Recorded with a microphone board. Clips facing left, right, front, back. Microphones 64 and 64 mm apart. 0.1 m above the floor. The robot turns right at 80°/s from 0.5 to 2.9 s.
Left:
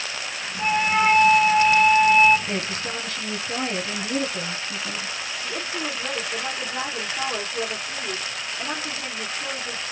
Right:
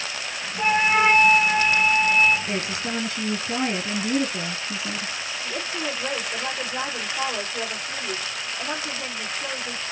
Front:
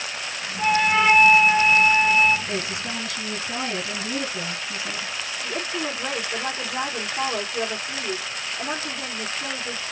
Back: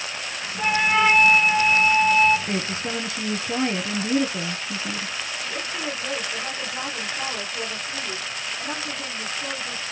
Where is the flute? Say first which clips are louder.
Right 1 dB, front 1 dB; 120° right, 1.0 m; by 2.4 s 20° left, 1.0 m.